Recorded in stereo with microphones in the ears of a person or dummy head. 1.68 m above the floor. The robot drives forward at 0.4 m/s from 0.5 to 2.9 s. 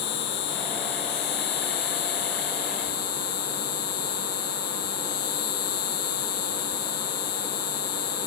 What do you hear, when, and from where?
0.0 s an insect: 60° left (ahead or behind); by 8.3 s 50° left (ahead or behind)